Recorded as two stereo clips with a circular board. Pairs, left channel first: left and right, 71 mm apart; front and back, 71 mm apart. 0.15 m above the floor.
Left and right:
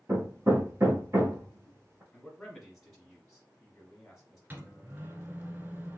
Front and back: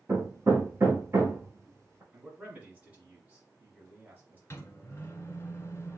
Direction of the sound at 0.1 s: 135° right.